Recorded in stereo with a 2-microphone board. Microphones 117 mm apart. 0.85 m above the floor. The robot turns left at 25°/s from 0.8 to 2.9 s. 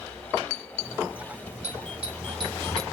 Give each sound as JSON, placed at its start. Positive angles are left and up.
{"t": 1.6, "sound": "a doorbell", "side_deg": -65, "distance_m": 5.0}